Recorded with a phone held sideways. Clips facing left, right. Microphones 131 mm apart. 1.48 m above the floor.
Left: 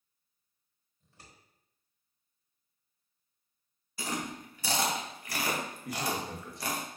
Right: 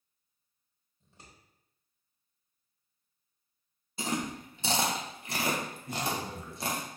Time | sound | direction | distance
1.0 | scissors | 20° right (ahead or behind) | 1.2 m
4.0 | chewing | 25° right (ahead or behind) | 0.6 m
5.8 | a man speaking | 85° left | 1.0 m